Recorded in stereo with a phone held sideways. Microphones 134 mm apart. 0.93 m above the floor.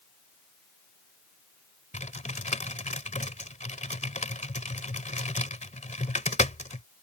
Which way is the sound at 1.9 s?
65° left (ahead or behind).